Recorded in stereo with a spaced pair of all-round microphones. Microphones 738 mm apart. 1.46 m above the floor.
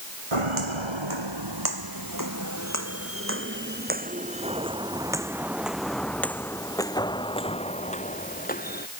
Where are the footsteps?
40° right (ahead or behind); by 8.9 s 10° left (ahead or behind).